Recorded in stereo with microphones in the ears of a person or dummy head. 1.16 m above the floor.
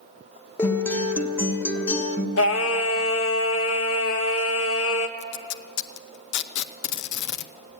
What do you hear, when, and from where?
0.6 s a guitar: 15° left (ahead or behind), 1.1 m
2.4 s singing: 75° left (ahead or behind), 1.1 m
5.2 s tape being pulled: 70° left (ahead or behind), 0.6 m